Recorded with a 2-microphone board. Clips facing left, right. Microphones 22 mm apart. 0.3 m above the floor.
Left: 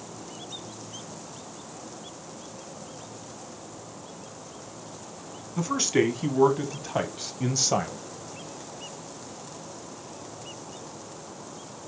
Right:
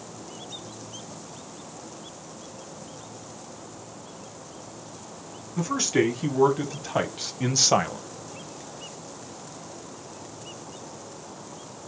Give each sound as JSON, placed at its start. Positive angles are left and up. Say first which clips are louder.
{"t": 5.6, "sound": "a man speaking", "louder": "even", "side_deg": 10, "distance_m": 2.5}